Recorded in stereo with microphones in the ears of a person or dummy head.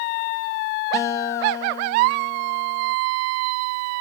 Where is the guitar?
15° left (ahead or behind), 1.1 m.